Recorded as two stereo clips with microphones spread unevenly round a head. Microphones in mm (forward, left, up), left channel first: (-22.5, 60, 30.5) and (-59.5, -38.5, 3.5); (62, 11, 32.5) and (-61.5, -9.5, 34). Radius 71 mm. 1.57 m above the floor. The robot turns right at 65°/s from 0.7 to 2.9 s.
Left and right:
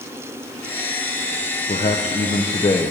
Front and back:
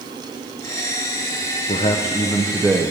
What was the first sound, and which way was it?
A man speaking, 45° left.